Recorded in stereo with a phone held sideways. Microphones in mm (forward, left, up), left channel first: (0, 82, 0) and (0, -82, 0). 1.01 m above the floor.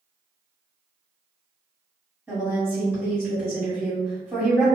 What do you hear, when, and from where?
2.3 s a woman speaking: 10° right (ahead or behind), 2.0 m